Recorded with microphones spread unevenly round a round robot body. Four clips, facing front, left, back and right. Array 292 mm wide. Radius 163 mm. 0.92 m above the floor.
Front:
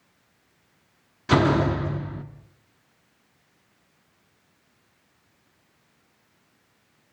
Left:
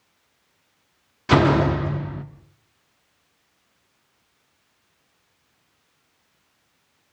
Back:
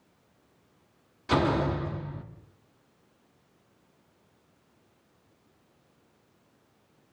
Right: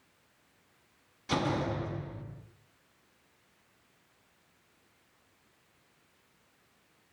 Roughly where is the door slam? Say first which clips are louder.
Left 14 dB, front 5 dB; ahead left.